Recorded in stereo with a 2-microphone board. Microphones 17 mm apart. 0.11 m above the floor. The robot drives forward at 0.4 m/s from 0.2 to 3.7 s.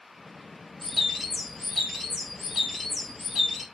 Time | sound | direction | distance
0.8 | a bird | 5° left (ahead or behind) | 1.9 m